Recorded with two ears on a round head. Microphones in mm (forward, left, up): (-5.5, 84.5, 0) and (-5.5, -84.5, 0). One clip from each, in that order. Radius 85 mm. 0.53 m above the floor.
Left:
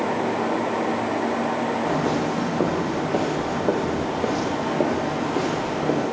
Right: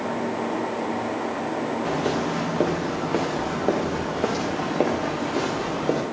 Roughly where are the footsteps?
Right.